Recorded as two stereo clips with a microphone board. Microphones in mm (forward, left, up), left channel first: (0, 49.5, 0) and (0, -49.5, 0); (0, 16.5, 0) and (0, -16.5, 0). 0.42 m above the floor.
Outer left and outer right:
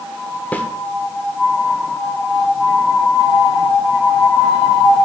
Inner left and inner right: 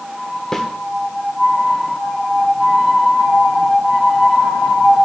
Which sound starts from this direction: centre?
A snare drum, at 0.5 s.